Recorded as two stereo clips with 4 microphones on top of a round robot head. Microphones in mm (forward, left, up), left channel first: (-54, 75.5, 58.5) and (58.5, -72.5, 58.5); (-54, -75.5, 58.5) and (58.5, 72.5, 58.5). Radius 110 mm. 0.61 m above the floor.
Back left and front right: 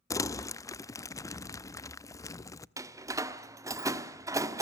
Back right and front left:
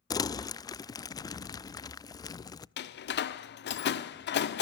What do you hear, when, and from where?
0.1 s crumpling: 175° right, 0.6 m
2.8 s a door slam: 125° right, 1.2 m